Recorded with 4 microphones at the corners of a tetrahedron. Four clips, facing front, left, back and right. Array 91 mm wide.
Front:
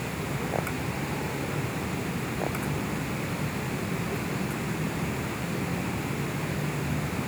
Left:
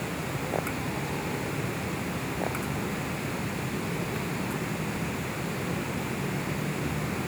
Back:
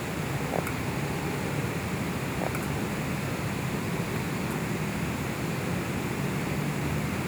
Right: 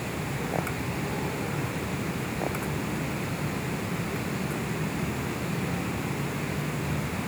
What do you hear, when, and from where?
Only background noise.